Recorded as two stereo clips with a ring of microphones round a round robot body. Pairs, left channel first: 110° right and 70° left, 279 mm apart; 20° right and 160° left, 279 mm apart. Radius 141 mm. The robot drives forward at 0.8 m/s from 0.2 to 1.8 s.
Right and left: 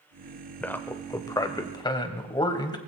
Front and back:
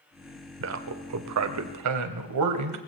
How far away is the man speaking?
About 1.0 m.